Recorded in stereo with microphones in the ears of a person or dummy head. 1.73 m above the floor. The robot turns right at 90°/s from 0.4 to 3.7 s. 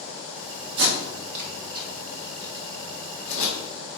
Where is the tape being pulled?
65° right (ahead or behind), 2.5 m; by 4.0 s 30° left (ahead or behind), 2.5 m.